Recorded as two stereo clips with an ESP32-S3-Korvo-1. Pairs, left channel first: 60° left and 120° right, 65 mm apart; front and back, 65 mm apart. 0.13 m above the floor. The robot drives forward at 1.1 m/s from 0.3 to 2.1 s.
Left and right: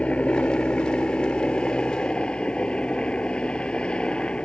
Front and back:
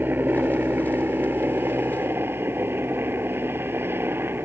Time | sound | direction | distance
0.0 | a helicopter | 125° left | ?